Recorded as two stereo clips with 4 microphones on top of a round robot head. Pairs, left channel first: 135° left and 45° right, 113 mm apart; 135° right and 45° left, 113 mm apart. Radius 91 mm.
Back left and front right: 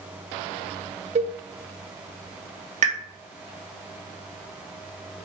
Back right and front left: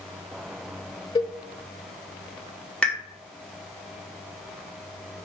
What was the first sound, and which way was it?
A cowbell, 80° right.